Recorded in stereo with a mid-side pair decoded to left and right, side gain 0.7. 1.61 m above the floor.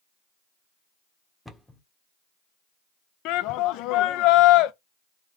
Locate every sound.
1.4 s a cupboard door: 5° left, 0.9 m
3.2 s a shout: 60° left, 0.5 m